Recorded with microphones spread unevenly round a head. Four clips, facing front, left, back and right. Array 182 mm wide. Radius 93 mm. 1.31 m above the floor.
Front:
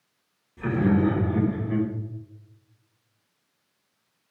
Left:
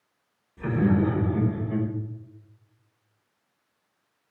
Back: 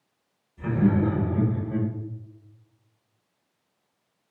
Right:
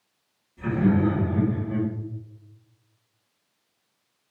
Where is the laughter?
15° left, 1.7 m; by 1.9 s straight ahead, 1.1 m.